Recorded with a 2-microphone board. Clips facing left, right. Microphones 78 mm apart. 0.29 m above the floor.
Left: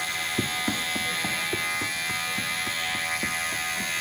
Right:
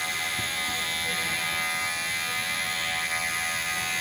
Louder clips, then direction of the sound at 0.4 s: Left 3 dB; 55° left (ahead or behind).